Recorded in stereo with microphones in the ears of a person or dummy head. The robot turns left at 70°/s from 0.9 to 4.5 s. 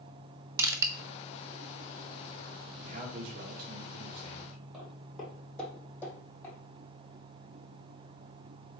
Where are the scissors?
I don't hear scissors.